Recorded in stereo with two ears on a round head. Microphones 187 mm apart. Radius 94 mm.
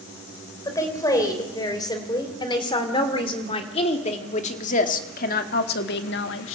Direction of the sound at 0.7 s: 15° left (ahead or behind).